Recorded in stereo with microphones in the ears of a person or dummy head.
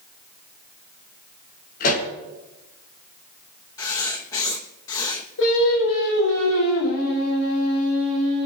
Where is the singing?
75° left (ahead or behind), 9 m.